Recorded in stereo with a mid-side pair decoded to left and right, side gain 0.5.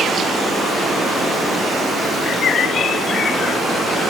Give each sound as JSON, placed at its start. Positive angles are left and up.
{"t": 0.0, "sound": "running water", "azimuth_deg": -20, "distance_m": 7.0}